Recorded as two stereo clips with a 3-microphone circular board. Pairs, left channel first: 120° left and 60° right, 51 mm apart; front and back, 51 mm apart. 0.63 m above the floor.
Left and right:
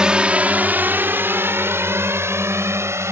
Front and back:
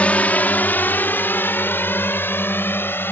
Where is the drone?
10° right; by 3.1 s 40° right.